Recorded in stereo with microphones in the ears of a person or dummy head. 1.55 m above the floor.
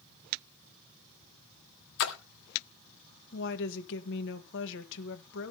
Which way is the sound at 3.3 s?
70° left (ahead or behind).